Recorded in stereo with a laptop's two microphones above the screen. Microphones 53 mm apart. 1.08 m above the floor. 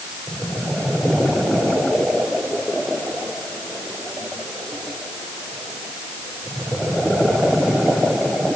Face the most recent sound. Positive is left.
No sound to turn to.